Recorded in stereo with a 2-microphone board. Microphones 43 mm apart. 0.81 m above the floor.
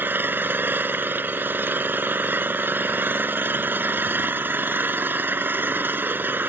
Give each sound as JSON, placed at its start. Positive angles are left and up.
{"t": 0.0, "sound": "an engine running", "side_deg": -50}